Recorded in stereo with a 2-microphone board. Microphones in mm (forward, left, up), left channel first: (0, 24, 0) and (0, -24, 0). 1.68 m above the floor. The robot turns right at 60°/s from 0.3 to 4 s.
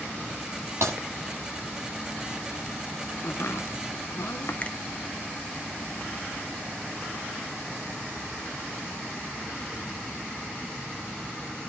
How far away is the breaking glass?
About 8.5 m.